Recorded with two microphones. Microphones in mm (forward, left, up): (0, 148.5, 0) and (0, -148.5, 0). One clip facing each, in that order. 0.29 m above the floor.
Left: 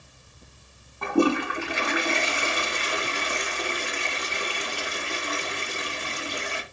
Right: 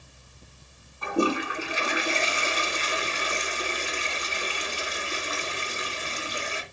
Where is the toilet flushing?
65° left (ahead or behind), 1.9 m.